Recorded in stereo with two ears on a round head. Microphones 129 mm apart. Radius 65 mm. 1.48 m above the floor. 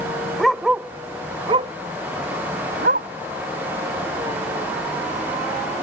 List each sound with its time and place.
0.4 s a dog barking: 5° left (ahead or behind); by 3.1 s 70° right (ahead or behind)